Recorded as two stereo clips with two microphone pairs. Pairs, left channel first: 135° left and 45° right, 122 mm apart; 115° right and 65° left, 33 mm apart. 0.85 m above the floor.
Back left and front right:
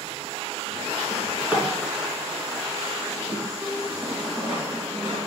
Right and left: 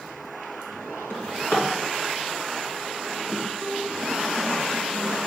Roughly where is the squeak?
Behind right.